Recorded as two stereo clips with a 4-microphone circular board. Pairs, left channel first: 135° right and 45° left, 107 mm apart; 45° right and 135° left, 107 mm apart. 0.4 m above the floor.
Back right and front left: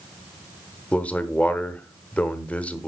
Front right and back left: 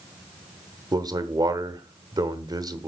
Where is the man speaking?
155° left, 0.9 m.